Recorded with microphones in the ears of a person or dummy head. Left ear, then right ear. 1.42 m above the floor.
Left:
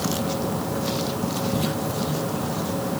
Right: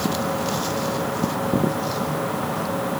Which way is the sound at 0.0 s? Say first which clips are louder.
Right 2 dB; 60° right (ahead or behind).